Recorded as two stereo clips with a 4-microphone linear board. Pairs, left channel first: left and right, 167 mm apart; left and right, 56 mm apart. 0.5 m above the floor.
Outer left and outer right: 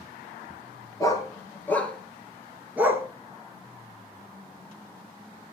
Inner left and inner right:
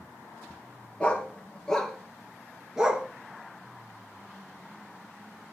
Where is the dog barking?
20° left (ahead or behind), 2.5 m; by 3.1 s 15° right (ahead or behind), 1.7 m.